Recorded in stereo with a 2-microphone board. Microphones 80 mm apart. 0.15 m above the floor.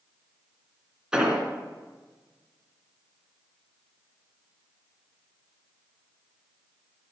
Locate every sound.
1.1 s an explosion: 10° right (ahead or behind), 1.7 m